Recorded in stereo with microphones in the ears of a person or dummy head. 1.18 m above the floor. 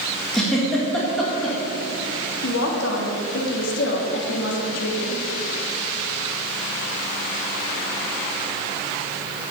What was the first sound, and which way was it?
A giggle, centre (ahead or behind).